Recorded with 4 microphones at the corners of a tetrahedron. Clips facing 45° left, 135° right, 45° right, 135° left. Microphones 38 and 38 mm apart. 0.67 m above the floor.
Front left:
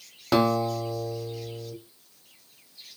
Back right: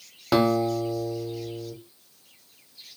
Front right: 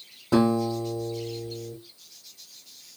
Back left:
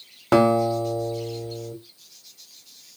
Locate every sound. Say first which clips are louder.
0.3 s a guitar: back right 1 dB, back left 4 dB; 140° left, 0.6 m